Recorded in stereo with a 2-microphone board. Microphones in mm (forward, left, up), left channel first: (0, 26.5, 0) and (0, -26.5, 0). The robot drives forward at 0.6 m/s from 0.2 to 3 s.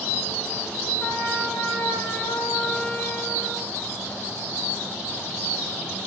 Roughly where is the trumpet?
Left.